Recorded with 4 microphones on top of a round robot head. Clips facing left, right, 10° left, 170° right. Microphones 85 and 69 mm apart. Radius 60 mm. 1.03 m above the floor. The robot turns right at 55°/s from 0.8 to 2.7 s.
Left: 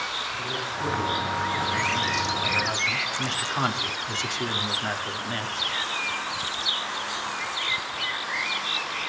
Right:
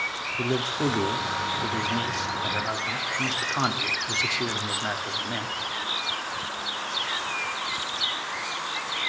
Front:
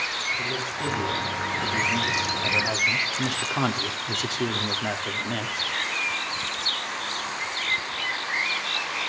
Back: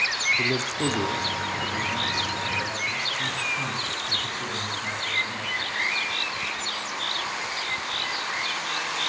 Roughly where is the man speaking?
Behind right.